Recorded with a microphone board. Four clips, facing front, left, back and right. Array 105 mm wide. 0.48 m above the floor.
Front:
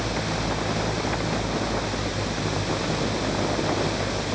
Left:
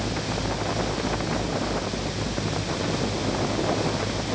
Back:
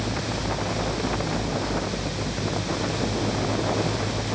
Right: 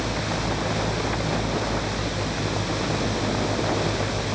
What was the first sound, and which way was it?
Only background noise.